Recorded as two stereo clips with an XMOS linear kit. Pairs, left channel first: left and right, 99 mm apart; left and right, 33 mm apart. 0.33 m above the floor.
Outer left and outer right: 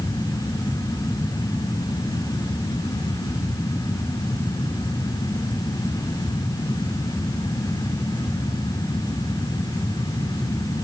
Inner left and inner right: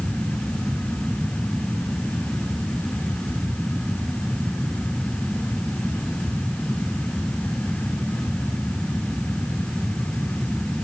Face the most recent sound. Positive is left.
No sound to turn to.